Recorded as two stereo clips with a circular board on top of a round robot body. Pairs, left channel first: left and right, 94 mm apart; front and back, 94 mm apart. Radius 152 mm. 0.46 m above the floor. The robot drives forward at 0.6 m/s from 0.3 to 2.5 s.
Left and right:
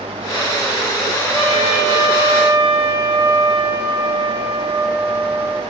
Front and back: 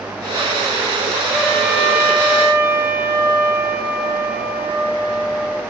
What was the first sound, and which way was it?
A trumpet, 90° right.